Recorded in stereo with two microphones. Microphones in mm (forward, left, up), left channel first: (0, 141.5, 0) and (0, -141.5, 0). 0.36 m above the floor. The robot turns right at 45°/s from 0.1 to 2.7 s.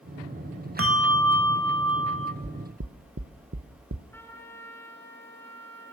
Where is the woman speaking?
I don't hear a woman speaking.